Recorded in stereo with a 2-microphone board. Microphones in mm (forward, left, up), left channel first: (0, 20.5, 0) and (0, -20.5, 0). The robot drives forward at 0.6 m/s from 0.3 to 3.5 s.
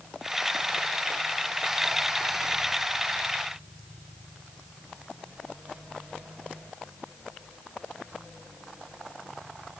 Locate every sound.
Only background noise.